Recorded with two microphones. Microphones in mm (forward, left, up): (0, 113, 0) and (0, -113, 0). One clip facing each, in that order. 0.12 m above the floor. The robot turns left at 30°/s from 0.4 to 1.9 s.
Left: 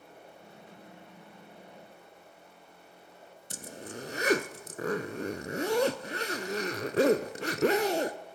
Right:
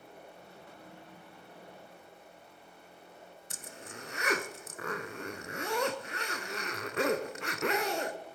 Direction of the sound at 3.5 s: 35° left (ahead or behind).